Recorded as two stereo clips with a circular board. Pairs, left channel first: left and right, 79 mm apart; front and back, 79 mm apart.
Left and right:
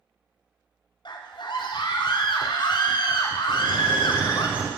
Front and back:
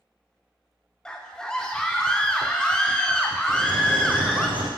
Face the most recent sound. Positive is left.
turn(degrees=-165)